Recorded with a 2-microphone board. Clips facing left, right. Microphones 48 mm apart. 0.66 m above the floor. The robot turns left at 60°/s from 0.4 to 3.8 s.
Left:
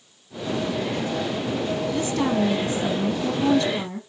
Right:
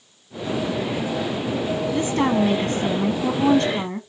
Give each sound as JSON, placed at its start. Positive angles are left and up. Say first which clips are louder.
{"t": 1.9, "sound": "a woman speaking", "louder": "right 4 dB", "azimuth_deg": -30, "distance_m": 0.9}